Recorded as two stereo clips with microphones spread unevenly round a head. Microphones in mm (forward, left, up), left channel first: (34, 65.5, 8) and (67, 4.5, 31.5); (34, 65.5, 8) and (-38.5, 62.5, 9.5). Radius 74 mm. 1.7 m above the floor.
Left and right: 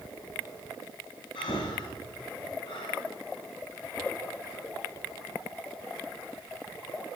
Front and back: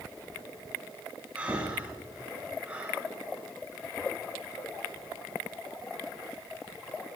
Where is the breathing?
110° left, 3 m.